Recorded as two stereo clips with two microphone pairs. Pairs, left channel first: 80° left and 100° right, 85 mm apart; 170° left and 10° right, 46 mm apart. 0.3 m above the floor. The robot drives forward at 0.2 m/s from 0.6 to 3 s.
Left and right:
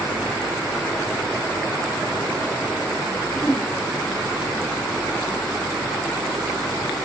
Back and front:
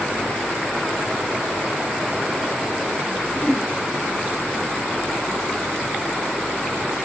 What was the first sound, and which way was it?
A whoosh, 160° left.